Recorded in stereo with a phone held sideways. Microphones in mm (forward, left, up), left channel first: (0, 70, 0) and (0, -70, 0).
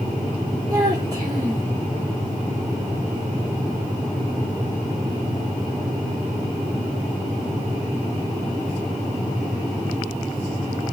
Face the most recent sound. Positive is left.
turn(degrees=-25)  # may be behind; listen again after turning